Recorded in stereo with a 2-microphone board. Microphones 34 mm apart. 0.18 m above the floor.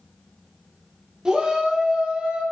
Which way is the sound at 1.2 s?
20° right (ahead or behind).